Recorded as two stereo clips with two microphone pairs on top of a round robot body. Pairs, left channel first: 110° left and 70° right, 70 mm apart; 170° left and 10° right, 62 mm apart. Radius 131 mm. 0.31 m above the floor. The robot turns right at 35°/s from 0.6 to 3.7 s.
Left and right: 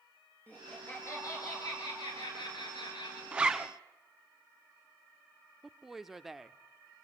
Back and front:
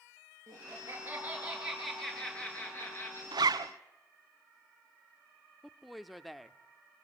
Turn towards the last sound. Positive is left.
turn(degrees=-115)